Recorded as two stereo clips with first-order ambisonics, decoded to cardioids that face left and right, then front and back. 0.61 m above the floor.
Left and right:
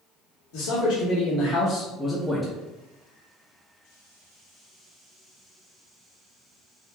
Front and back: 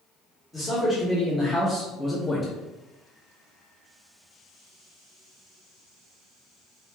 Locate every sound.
0.5 s a man speaking: 90° left, 1.2 m; by 2.6 s 45° right, 0.7 m